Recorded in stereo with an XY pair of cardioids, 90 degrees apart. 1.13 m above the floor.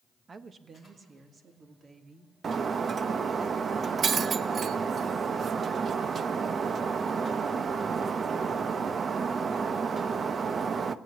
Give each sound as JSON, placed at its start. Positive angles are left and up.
{"t": 0.3, "sound": "a woman speaking", "azimuth_deg": -40, "distance_m": 1.1}
{"t": 2.4, "sound": "breaking glass", "azimuth_deg": -50, "distance_m": 0.7}